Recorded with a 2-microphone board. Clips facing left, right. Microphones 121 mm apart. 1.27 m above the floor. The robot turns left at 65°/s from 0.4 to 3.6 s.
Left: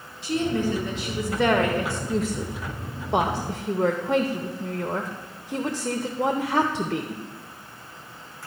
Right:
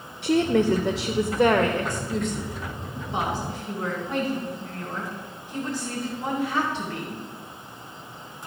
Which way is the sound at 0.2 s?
105° right.